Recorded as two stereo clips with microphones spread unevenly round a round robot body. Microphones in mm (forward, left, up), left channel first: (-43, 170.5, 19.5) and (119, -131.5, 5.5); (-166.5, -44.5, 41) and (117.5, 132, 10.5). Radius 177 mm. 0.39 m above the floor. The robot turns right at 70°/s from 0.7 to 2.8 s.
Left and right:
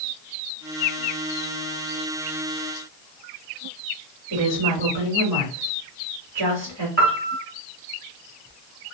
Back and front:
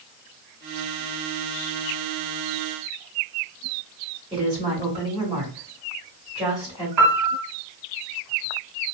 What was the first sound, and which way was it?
A woman speaking, 45° right.